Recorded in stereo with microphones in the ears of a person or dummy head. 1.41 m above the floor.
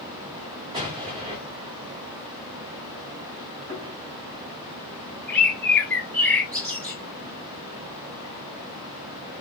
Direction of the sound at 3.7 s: 40° right (ahead or behind).